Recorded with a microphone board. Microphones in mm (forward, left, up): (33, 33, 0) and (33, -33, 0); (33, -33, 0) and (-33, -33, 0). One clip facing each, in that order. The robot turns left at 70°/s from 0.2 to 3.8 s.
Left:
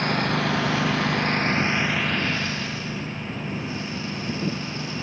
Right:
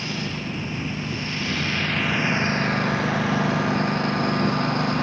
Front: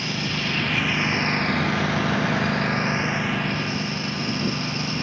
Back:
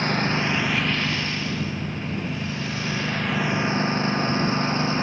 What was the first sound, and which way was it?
A lawn mower, 130° left.